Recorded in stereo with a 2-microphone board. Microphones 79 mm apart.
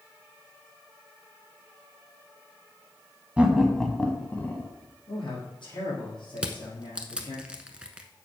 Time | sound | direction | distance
3.4 | laughter | 15° right (ahead or behind) | 1.0 m
5.1 | a man speaking | 70° left (ahead or behind) | 4 m
6.4 | crushing | 15° right (ahead or behind) | 0.9 m